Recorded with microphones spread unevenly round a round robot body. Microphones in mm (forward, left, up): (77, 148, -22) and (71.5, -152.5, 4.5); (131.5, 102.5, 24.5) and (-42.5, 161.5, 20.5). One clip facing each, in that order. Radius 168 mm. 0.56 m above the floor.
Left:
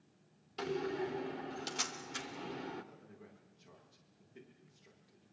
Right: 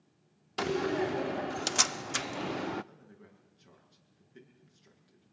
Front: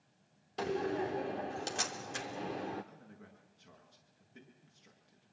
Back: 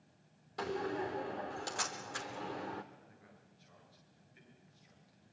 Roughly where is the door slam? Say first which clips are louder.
Right 7 dB, front 3 dB; right.